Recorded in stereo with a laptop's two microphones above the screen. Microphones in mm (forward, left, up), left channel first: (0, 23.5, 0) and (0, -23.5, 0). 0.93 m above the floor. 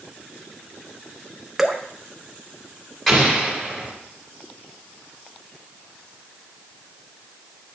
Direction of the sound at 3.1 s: 10° left (ahead or behind).